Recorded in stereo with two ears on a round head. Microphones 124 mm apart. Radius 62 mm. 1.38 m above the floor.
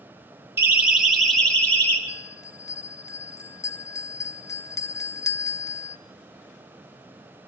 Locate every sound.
0.6 s a siren: 15° right (ahead or behind), 2.5 m; by 2.0 s 15° left (ahead or behind), 3.5 m
2.1 s a bell: 20° left (ahead or behind), 0.7 m